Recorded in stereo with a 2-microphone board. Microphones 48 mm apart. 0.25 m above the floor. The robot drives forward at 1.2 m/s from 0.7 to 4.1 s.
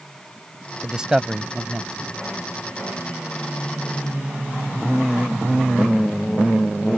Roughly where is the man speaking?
Centre.